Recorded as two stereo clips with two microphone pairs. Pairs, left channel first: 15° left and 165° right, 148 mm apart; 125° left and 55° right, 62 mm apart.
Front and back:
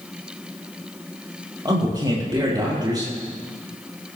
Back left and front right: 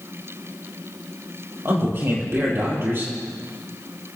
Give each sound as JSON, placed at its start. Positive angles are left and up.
{"t": 1.6, "sound": "a man speaking", "azimuth_deg": -100, "distance_m": 4.0}